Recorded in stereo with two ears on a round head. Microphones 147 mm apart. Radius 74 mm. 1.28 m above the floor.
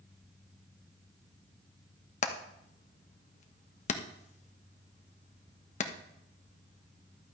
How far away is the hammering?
About 1.1 m.